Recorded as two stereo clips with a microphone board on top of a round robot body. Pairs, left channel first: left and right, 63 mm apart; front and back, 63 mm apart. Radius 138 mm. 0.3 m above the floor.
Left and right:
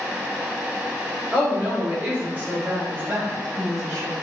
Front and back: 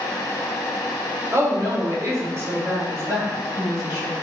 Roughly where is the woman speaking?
Behind right.